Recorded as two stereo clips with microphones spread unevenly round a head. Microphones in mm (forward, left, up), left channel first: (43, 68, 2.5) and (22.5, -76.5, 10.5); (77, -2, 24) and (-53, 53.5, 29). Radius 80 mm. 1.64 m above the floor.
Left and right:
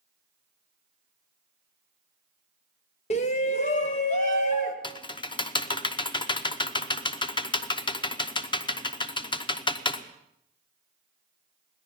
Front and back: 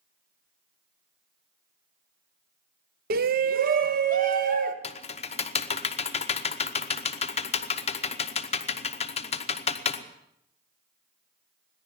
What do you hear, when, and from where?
3.1 s a shout: 135° left, 0.7 m; by 4.7 s 130° left, 2.0 m
4.8 s typing on a keyboard: 25° left, 0.9 m